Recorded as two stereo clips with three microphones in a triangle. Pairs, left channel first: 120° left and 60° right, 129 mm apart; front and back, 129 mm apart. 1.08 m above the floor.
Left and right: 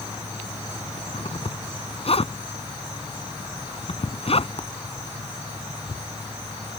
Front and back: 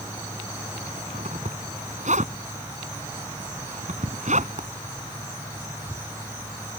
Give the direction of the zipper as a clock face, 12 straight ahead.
7 o'clock.